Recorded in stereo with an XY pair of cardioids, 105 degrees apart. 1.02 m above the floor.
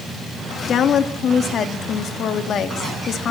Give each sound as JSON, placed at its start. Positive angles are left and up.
{"t": 0.7, "sound": "a woman speaking", "azimuth_deg": 60, "distance_m": 2.0}